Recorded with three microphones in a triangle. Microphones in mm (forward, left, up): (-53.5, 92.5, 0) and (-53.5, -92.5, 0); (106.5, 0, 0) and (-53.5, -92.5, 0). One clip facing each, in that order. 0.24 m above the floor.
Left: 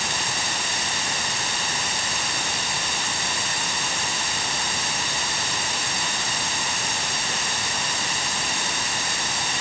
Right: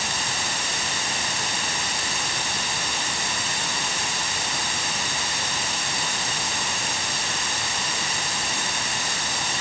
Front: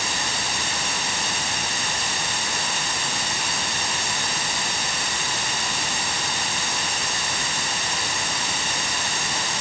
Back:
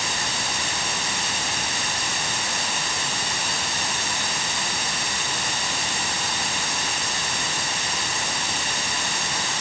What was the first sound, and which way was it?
Only background noise.